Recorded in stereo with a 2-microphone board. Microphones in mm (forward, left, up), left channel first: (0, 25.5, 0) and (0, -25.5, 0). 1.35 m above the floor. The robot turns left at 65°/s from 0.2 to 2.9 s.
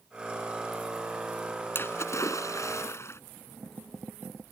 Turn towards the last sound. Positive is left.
turn(degrees=60)